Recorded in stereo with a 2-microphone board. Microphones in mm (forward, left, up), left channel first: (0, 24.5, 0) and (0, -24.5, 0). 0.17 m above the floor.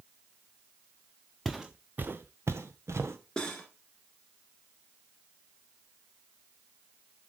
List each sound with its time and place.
1.4 s footsteps: 5° right (ahead or behind), 0.9 m; by 3.2 s 80° right, 1.5 m
3.4 s cutlery clinking: 15° left (ahead or behind), 1.5 m